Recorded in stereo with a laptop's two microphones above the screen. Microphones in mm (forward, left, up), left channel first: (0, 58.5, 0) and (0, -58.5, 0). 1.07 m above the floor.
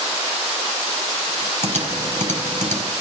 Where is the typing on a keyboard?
85° right, 4 m.